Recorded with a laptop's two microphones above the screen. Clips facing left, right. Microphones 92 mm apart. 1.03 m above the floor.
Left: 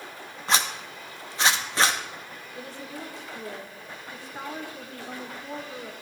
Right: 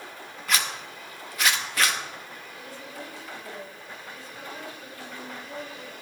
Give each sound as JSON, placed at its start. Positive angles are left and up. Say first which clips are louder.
{"t": 0.5, "sound": "a zipper", "louder": "left 3 dB", "side_deg": 25, "distance_m": 0.7}
{"t": 2.5, "sound": "a woman speaking", "louder": "left 4 dB", "side_deg": 70, "distance_m": 1.9}